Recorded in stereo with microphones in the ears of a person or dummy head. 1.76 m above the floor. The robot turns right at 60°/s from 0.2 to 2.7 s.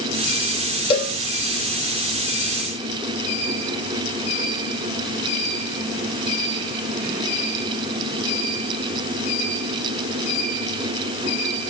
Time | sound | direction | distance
0.9 | a cowbell | 30° left (ahead or behind) | 4 m